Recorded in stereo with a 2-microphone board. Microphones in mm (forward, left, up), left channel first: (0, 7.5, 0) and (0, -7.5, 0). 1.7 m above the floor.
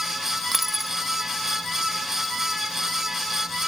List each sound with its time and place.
0.5 s a dropped coin: 5° right (ahead or behind)